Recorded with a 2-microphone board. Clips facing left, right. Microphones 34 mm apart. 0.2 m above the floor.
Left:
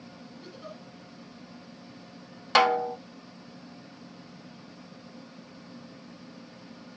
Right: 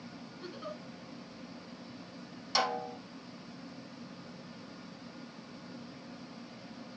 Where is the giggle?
25° right (ahead or behind), 2 m.